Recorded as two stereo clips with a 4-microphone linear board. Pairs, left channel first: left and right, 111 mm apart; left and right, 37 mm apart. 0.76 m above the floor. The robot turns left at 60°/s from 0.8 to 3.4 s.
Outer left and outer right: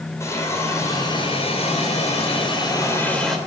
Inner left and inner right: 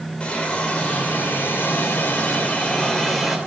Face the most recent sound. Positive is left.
turn(degrees=-5)